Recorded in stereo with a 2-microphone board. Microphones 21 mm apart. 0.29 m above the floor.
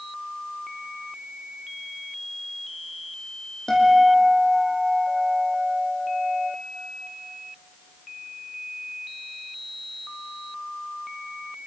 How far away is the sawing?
I don't hear sawing.